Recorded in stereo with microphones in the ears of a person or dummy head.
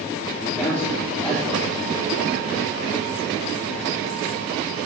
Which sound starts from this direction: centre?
A man speaking, at 0.4 s.